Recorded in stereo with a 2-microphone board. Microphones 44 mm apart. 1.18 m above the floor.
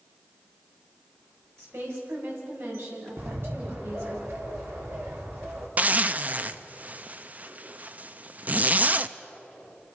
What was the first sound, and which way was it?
A woman speaking, 80° right.